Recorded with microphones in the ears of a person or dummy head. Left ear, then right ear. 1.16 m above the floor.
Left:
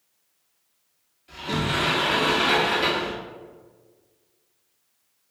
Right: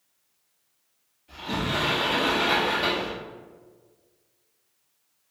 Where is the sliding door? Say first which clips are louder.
Left 2 dB; 30° left (ahead or behind), 1.6 m.